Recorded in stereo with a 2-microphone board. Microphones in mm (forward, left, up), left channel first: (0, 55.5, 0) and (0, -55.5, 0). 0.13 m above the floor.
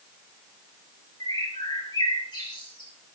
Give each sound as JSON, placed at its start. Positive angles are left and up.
{"t": 1.2, "sound": "a bird", "side_deg": 40, "distance_m": 2.5}